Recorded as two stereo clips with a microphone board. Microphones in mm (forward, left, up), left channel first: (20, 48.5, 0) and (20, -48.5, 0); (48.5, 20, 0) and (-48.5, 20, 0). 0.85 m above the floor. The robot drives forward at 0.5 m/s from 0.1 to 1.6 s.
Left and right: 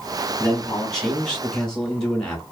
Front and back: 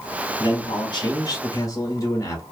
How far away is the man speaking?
About 1.4 m.